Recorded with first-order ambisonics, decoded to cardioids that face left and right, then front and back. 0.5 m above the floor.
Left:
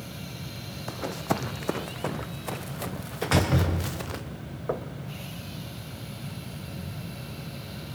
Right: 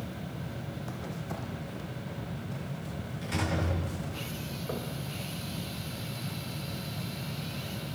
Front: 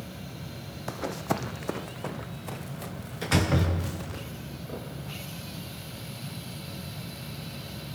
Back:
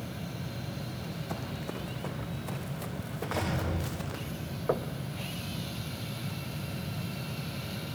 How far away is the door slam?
About 6.5 m.